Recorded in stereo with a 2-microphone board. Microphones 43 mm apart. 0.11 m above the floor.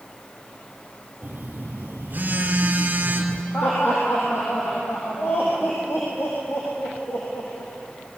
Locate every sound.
1.2 s a phone buzzing: 45° right (ahead or behind), 2.5 m
3.5 s laughter: 70° left (ahead or behind), 5 m